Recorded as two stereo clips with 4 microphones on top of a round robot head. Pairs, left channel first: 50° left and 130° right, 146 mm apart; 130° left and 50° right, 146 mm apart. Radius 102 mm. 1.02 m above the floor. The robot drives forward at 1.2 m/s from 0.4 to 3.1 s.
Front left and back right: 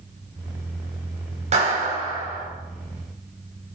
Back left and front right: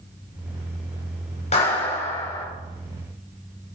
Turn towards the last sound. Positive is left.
turn(degrees=180)